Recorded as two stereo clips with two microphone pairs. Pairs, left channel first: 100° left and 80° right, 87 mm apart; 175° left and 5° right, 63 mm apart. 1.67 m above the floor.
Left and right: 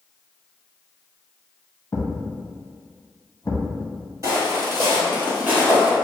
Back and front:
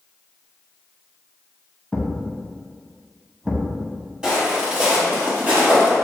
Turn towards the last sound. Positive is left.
turn(degrees=-15)